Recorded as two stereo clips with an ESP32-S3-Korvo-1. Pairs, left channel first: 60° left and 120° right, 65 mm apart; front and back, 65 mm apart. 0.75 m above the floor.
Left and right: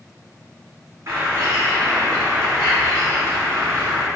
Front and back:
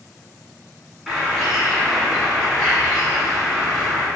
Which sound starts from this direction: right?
A bird, at 1.1 s.